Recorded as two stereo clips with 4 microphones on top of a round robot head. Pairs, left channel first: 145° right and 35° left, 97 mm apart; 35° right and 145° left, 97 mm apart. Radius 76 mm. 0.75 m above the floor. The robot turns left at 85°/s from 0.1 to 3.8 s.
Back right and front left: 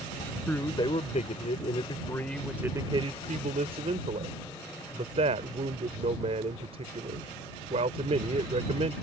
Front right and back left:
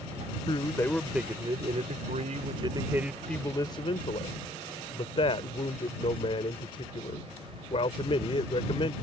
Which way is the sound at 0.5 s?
70° right.